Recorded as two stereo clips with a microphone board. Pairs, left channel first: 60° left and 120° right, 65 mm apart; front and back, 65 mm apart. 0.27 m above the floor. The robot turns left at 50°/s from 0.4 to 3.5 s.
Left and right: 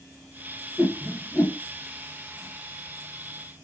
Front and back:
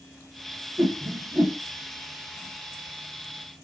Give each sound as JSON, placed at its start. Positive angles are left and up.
{"t": 0.8, "sound": "a whoosh", "azimuth_deg": 165, "distance_m": 1.0}